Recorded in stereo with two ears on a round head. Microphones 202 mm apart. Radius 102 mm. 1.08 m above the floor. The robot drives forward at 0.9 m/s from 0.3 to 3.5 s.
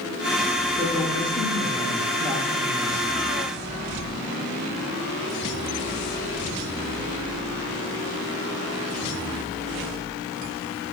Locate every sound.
0.8 s a woman speaking: centre (ahead or behind), 9.5 m